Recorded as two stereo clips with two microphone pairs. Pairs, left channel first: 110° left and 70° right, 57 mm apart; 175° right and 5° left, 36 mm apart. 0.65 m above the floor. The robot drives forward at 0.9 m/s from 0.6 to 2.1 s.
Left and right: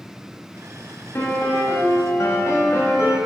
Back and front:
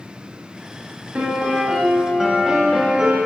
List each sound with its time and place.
1.1 s a piano: 50° left, 1.7 m; by 3.2 s 80° left, 1.3 m